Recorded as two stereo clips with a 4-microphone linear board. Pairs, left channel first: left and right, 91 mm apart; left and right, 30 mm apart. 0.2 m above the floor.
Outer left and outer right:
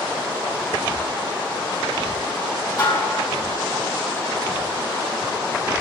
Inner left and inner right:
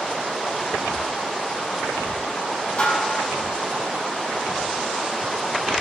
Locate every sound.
2.8 s dishes clattering: 45° left (ahead or behind), 4 m